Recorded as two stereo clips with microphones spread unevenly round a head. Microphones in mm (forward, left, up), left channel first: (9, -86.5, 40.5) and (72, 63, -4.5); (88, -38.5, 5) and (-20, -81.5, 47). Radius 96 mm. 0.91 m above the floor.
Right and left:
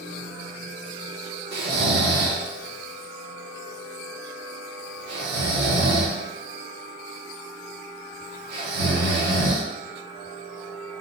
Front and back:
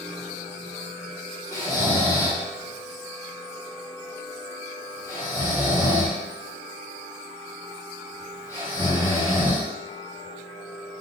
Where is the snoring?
100° left, 0.7 m.